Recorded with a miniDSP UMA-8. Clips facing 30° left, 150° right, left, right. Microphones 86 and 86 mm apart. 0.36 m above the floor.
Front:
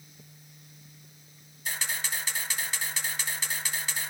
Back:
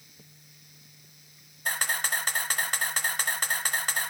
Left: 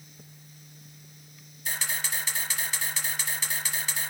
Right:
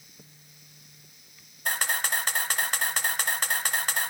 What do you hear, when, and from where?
1.6 s a camera shutter: 115° right, 1.4 m